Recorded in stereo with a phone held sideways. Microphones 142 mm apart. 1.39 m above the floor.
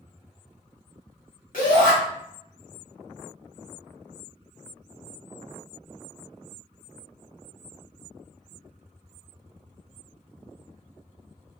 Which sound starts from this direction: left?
A shout, at 1.5 s.